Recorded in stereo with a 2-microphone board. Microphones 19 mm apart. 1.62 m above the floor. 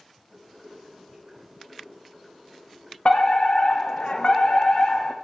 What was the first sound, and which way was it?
Boiling, centre (ahead or behind).